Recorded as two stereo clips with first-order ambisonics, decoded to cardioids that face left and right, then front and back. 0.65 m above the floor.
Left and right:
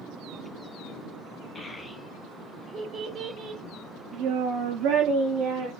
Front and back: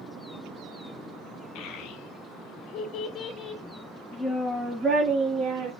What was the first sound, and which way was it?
A child speaking, 10° left.